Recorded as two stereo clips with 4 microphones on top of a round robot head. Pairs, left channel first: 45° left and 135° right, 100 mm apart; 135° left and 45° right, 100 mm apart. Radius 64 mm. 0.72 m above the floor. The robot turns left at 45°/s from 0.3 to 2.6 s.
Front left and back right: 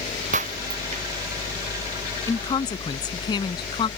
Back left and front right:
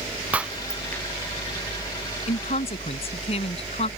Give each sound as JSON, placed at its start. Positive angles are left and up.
{"t": 0.3, "sound": "breaking glass", "azimuth_deg": -125}
{"t": 2.3, "sound": "a woman speaking", "azimuth_deg": 115}